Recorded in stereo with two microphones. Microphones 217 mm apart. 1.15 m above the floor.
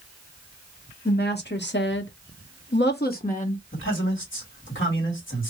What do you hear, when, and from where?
1.1 s a woman speaking: 50° left (ahead or behind), 1.6 m; by 3.6 s 30° left (ahead or behind), 1.1 m
3.7 s a man speaking: 70° left (ahead or behind), 2.5 m